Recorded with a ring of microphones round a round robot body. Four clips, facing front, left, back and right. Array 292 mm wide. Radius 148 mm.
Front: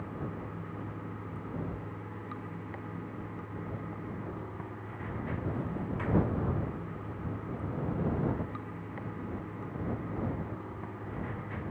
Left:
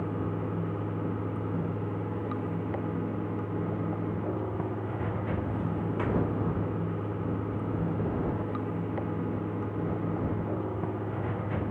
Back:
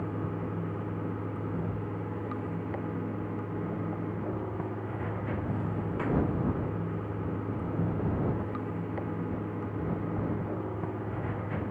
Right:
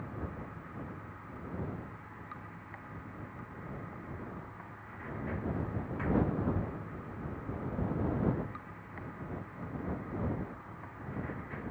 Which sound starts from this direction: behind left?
Running water, at 0.0 s.